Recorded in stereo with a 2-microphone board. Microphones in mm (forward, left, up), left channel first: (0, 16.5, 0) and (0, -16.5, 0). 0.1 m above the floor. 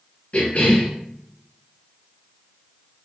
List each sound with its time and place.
0.3 s a cough: 45° left (ahead or behind), 1.9 m